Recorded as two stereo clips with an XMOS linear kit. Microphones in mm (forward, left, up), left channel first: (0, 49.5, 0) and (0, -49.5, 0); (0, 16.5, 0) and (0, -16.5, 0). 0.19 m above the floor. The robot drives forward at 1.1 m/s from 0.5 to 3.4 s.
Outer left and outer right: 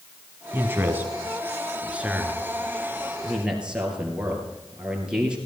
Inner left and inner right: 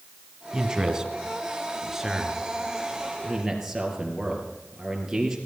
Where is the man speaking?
20° right (ahead or behind), 1.6 m; by 5.4 s 10° right (ahead or behind), 4 m.